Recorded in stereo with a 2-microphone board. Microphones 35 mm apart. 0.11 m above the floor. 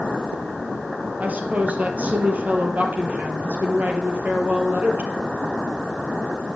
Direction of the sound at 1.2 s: 50° right (ahead or behind).